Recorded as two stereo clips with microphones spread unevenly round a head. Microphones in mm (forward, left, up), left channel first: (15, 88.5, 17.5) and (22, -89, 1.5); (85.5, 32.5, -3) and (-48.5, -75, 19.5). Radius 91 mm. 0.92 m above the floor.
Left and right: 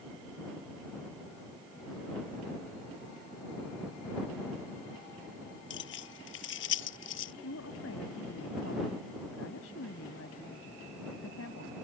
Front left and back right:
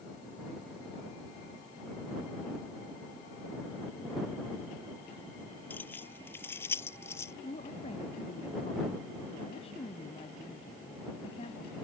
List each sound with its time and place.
5.7 s keys jangling: 120° left; by 7.3 s 115° left
7.4 s a woman speaking: 100° left